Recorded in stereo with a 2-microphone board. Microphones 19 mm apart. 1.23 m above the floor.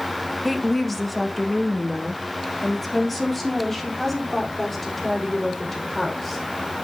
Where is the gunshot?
No gunshot in this recording.